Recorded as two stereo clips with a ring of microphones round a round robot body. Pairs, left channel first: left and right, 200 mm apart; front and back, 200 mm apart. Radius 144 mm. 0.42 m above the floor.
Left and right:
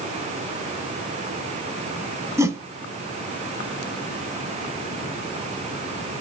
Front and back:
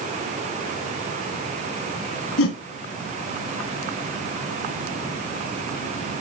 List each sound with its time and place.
2.4 s a whoosh: 15° right, 1.6 m